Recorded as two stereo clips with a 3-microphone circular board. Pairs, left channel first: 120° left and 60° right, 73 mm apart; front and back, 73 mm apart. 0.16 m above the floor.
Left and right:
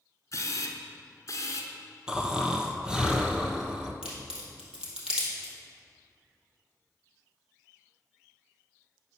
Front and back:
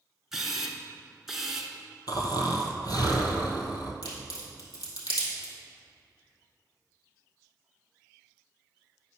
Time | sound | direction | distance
0.3 | a camera shutter | 100° left | 0.9 m
2.1 | snoring | 20° left | 0.9 m
4.0 | a crack | 20° left | 2.5 m